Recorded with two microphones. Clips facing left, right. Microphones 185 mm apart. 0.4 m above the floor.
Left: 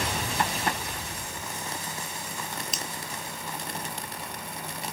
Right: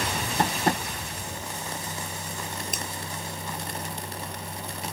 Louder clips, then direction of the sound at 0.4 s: Right 6 dB; 40° right (ahead or behind).